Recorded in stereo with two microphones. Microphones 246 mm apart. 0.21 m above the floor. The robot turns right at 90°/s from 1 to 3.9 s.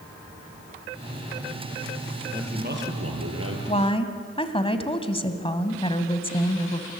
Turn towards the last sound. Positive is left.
turn(degrees=20)  # may be behind; listen again after turning